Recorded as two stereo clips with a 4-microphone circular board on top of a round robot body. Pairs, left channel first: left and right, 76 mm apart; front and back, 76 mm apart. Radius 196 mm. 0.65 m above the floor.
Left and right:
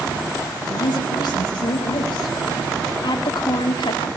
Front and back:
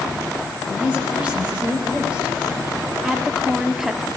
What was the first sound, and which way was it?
A woman speaking, 105° left.